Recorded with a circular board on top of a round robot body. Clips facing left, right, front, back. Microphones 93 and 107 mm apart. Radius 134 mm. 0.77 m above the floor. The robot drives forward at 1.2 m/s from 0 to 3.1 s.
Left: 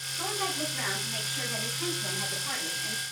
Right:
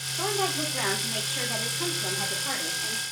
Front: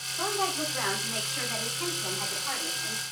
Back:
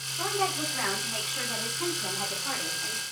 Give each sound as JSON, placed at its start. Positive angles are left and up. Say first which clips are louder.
{"t": 0.2, "sound": "a woman speaking", "louder": "right 5 dB, even", "azimuth_deg": -70, "distance_m": 3.0}